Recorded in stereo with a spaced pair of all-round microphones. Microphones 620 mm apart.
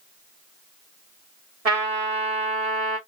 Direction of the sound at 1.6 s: 70° right (ahead or behind).